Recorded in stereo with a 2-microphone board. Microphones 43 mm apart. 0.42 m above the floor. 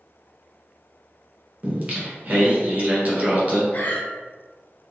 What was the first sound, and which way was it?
Singing, 35° right (ahead or behind).